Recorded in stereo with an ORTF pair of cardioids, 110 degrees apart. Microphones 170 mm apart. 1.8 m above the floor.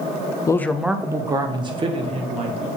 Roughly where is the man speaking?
Ahead.